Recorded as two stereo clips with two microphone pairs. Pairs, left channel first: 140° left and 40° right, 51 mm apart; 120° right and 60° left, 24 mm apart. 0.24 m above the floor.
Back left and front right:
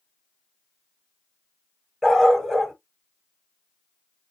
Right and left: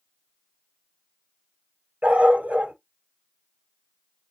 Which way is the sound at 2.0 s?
55° left.